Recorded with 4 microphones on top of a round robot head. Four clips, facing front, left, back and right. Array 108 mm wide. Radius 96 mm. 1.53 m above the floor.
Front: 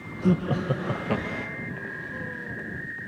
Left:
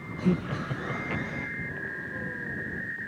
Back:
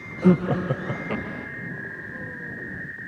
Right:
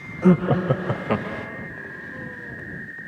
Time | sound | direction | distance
0.2 | laughter | 125° right | ?